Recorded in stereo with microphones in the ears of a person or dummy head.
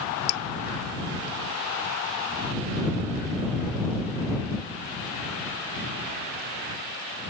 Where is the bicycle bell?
I don't hear a bicycle bell.